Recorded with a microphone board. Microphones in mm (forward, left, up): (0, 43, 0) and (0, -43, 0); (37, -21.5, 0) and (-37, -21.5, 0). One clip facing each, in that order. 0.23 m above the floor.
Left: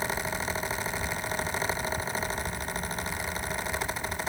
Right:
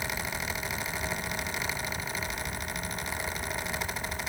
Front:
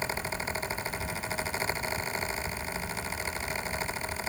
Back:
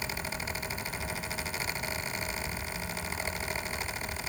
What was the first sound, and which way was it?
Only background noise.